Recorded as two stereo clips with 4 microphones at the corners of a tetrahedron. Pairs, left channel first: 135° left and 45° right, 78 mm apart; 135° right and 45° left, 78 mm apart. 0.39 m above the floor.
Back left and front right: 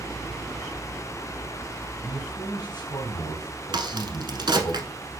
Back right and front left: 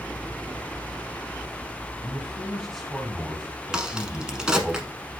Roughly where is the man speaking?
Behind left.